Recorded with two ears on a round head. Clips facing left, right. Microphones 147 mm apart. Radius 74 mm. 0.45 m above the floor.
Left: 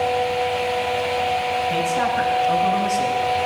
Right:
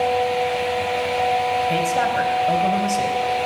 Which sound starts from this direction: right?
A woman speaking, at 1.7 s.